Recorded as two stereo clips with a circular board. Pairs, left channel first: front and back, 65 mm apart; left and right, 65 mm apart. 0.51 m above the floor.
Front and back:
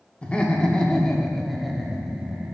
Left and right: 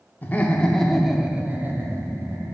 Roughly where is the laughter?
Ahead left.